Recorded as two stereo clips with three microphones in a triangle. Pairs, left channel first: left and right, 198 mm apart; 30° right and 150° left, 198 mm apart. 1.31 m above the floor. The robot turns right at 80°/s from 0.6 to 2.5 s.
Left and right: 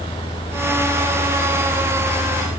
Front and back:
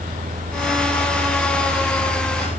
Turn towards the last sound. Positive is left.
No sound to turn to.